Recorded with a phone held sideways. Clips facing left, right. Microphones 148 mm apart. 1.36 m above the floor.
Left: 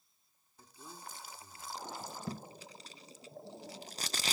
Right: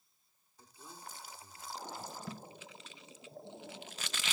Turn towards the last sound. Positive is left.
turn(degrees=40)  # may be behind; listen again after turning